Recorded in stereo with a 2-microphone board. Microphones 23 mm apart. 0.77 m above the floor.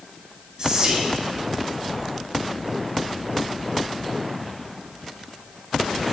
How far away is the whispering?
About 0.5 m.